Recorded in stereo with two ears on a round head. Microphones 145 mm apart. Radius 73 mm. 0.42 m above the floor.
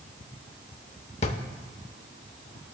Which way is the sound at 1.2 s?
40° left (ahead or behind).